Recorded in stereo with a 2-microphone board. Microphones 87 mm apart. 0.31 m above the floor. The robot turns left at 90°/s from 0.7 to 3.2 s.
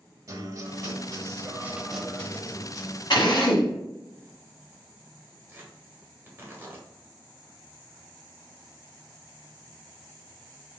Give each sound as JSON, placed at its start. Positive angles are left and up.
{"t": 0.3, "sound": "a guitar", "azimuth_deg": -65, "distance_m": 0.7}
{"t": 3.1, "sound": "a drill", "side_deg": 65, "distance_m": 1.4}
{"t": 5.5, "sound": "tearing paper", "side_deg": -25, "distance_m": 1.5}